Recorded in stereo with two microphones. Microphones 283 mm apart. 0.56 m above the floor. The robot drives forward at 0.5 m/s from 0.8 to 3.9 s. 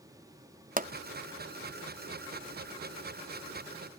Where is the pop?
30° right (ahead or behind), 0.6 m.